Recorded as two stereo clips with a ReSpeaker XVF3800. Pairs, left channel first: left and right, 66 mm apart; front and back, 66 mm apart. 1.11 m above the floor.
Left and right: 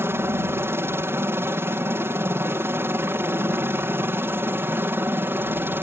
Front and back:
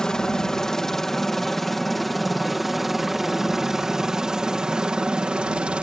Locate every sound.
0.0 s a helicopter: 75° right; by 5.8 s 120° right